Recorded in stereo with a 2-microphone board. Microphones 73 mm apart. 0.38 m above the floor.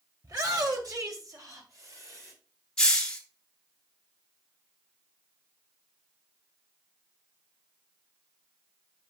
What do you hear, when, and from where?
0.2 s a shout: 50° right (ahead or behind), 1.8 m; by 2.3 s 45° right (ahead or behind), 2.5 m
2.8 s a hiss: 10° left (ahead or behind), 1.4 m